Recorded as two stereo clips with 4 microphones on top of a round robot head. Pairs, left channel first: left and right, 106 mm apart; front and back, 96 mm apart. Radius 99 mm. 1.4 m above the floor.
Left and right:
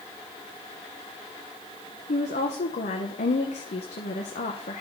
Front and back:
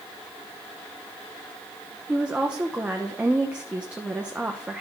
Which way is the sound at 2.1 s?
105° left.